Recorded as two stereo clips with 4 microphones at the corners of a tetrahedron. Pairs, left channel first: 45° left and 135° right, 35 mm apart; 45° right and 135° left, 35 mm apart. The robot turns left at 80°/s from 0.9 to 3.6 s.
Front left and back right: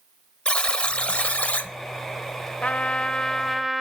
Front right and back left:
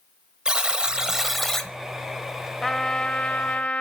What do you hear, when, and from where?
0.5 s a buzzer: 85° left, 0.8 m; by 1.7 s 20° left, 0.8 m
2.6 s a trumpet: 30° left, 0.6 m; by 3.8 s 45° right, 0.6 m